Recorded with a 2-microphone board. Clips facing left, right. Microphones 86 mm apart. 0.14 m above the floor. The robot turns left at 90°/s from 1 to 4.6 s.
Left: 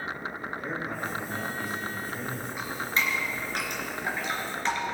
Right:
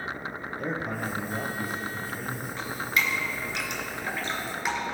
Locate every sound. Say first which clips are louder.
0.6 s a man speaking: right 3 dB; 85° right, 2.5 m; by 2.5 s 140° left, 2.5 m
2.6 s dripping: right 1 dB; 5° left (ahead or behind), 2 m; by 4.8 s 10° right (ahead or behind), 2 m